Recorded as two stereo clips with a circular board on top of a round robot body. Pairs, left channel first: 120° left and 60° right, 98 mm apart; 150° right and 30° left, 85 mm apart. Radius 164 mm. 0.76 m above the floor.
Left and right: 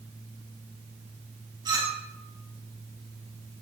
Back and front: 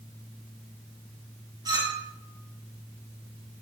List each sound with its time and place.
1.6 s a clink: 10° right, 6 m